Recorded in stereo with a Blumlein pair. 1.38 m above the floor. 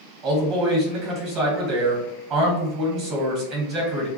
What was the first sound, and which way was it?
A man speaking, 35° right.